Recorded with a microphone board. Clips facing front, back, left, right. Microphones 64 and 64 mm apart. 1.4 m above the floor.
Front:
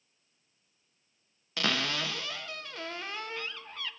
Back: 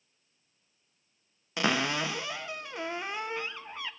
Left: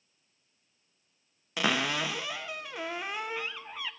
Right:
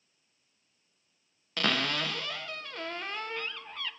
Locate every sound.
1.6 s a cupboard door: 150° left, 0.6 m